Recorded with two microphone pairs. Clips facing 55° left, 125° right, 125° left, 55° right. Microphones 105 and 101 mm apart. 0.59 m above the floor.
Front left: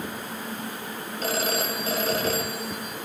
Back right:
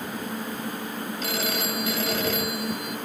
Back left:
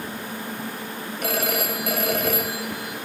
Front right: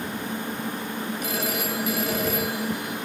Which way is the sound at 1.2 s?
105° left.